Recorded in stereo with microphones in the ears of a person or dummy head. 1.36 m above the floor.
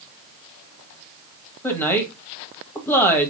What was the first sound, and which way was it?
A woman speaking, 15° left (ahead or behind).